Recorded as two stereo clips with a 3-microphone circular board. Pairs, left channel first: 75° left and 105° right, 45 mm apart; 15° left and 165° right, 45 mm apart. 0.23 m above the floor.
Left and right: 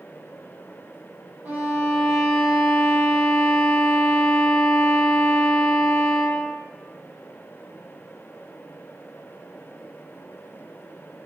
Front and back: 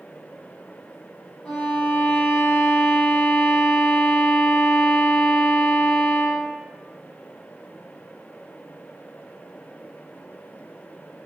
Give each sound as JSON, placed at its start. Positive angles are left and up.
{"t": 1.4, "sound": "a violin", "azimuth_deg": -65, "distance_m": 4.0}